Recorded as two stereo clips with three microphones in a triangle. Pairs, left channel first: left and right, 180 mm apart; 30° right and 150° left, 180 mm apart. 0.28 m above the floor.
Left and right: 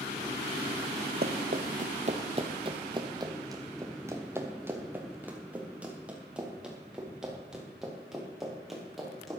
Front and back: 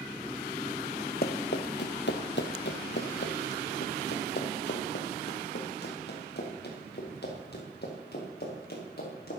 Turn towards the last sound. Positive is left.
turn(degrees=0)